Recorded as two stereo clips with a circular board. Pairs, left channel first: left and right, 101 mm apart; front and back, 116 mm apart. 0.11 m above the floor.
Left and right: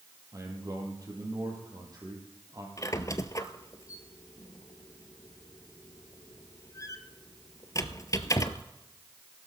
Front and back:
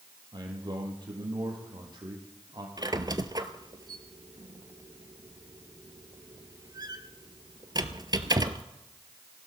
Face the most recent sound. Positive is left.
turn(degrees=135)